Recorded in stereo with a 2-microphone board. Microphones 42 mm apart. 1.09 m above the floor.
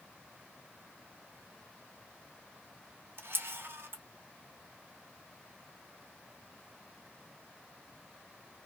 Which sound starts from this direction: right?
A camera shutter, at 3.2 s.